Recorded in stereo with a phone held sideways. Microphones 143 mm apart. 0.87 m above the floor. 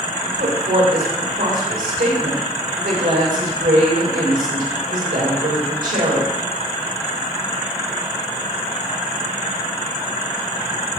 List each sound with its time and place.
0.2 s a woman speaking: 80° right, 3.5 m